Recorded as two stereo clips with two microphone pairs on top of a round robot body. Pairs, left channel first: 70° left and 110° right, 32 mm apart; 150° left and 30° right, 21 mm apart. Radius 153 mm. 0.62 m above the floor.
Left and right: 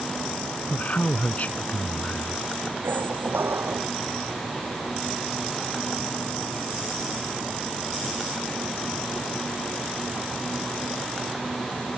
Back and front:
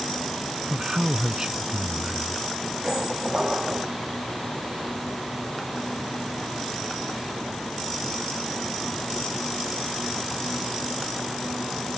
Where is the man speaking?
30° left.